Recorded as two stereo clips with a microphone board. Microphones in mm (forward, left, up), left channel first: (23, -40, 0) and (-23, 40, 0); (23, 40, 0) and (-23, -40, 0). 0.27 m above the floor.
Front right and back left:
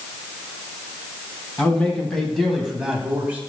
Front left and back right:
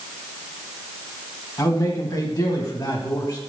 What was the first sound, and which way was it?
A man speaking, 15° left.